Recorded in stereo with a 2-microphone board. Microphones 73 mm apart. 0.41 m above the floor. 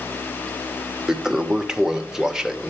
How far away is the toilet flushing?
About 0.8 m.